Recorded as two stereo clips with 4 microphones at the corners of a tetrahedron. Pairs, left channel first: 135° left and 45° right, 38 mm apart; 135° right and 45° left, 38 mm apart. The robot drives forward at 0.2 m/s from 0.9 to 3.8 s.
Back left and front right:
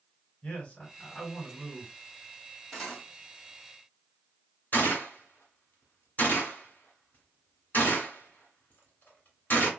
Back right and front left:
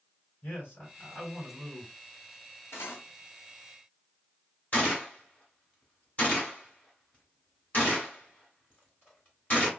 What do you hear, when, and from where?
0.4 s a man speaking: 170° right, 2.5 m
2.7 s cutlery clinking: 145° right, 1.6 m
4.7 s a gunshot: straight behind, 1.9 m